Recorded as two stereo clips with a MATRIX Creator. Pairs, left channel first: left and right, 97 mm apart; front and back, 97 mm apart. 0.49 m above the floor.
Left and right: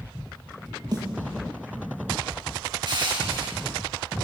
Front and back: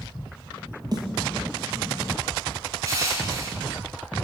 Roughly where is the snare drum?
Behind right.